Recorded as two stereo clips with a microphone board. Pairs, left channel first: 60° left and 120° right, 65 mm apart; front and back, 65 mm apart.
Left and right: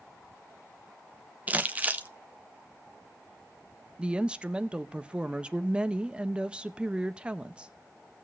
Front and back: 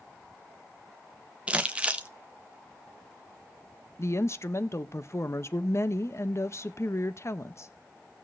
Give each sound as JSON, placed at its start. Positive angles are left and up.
{"t": 1.5, "sound": "crumpling", "azimuth_deg": -135, "distance_m": 0.7}
{"t": 4.0, "sound": "a woman speaking", "azimuth_deg": -45, "distance_m": 0.5}